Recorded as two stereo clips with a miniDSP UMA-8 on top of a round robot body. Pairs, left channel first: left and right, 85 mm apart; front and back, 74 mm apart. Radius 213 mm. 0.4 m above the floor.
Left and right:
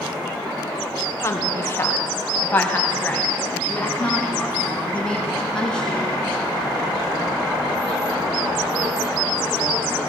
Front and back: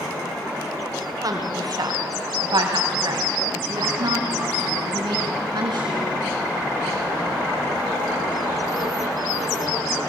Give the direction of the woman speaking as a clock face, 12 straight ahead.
7 o'clock.